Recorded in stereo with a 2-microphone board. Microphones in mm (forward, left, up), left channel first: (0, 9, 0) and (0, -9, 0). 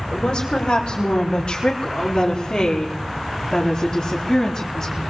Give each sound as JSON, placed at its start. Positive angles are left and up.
{"t": 0.1, "sound": "a woman speaking", "side_deg": 55, "distance_m": 5.5}